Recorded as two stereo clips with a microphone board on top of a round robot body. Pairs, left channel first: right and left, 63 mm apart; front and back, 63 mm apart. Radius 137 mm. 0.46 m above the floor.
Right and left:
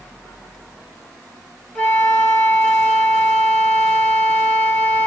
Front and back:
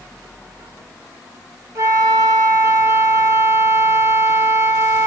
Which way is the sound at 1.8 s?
160° right.